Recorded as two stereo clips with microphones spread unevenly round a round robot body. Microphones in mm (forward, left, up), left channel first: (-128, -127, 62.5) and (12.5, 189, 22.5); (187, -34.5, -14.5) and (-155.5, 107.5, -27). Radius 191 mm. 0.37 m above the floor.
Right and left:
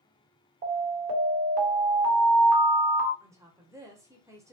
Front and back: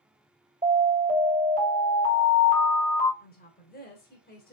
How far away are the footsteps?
No footsteps in this recording.